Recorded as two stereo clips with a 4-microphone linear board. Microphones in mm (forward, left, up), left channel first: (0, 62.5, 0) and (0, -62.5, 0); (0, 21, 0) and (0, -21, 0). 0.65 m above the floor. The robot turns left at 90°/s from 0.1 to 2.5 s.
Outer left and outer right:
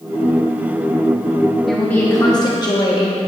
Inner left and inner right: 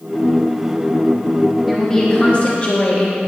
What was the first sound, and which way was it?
A woman speaking, straight behind.